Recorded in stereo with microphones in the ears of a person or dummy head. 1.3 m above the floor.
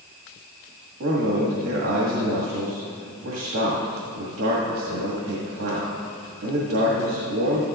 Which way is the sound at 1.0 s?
65° right (ahead or behind).